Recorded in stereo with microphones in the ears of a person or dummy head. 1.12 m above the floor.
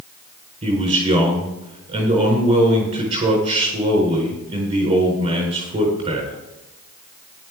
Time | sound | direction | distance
0.6 | a man speaking | 30° right (ahead or behind) | 4.5 m